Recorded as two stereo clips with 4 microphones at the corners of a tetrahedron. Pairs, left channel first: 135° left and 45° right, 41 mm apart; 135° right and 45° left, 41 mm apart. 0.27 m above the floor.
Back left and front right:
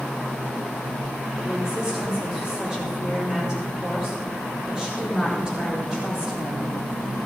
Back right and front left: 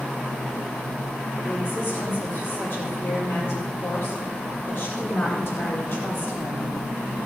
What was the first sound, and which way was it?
A woman speaking, 115° right.